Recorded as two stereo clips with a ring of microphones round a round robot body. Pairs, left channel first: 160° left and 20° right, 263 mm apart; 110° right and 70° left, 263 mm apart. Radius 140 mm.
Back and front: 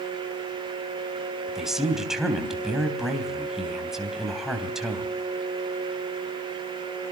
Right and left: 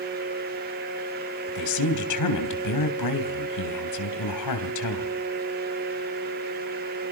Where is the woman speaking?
110° right, 3.5 m.